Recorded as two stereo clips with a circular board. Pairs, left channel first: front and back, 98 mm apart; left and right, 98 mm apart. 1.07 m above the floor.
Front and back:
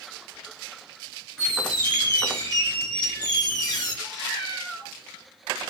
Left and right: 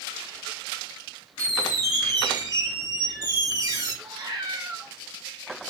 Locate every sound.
1.4 s a squeak: 45° right, 0.9 m
4.0 s a cat meowing: 85° right, 1.6 m